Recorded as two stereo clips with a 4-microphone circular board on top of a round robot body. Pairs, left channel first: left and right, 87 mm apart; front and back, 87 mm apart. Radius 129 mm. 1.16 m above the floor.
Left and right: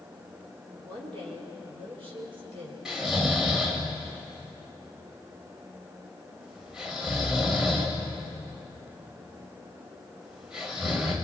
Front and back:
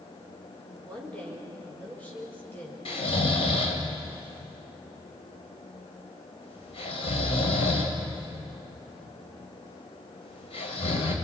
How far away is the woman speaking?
About 5 m.